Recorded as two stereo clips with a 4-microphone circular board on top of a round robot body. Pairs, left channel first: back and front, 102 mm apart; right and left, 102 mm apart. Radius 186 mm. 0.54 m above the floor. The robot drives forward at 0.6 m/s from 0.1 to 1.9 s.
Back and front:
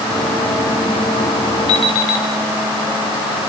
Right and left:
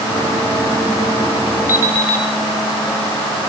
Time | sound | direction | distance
1.7 | an alarm clock | 155° left | 5 m